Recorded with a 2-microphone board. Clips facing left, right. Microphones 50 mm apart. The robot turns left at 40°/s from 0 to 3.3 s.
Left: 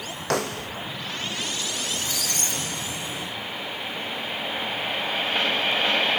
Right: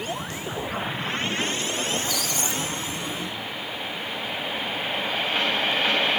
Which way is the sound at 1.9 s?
140° left.